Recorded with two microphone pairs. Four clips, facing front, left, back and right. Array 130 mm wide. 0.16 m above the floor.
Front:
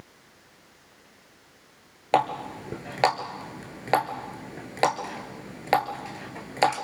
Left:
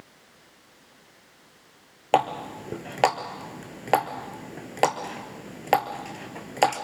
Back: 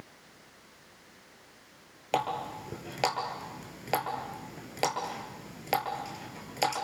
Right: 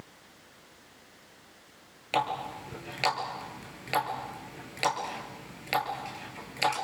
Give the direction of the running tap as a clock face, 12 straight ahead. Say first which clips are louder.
Left 7 dB, front 7 dB; 10 o'clock.